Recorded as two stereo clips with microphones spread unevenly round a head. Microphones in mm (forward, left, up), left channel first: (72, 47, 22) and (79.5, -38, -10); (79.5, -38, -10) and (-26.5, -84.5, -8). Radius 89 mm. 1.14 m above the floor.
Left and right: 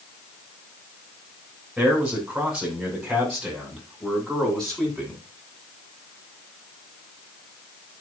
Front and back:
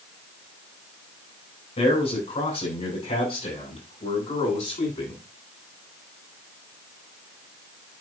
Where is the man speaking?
Straight ahead, 7.5 m; by 5.2 s 10° left, 9 m.